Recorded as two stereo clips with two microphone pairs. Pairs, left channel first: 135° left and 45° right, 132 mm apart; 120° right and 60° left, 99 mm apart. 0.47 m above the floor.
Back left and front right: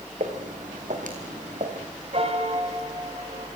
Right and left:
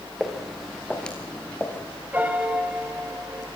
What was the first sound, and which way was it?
Footsteps, 30° right.